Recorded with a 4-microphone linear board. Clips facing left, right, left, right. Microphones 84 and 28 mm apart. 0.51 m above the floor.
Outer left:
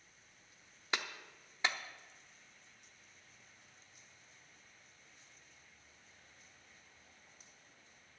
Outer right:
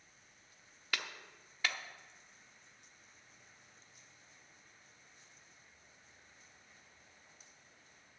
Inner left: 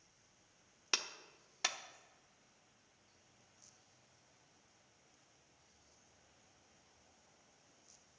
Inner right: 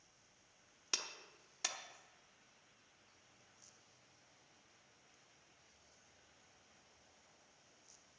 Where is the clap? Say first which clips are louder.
Outer left 2 dB, inner left 4 dB; 25° left (ahead or behind), 0.7 m.